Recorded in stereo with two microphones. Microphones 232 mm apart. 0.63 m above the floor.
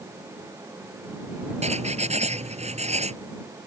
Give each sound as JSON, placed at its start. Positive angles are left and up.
{"t": 1.6, "sound": "writing", "side_deg": -25}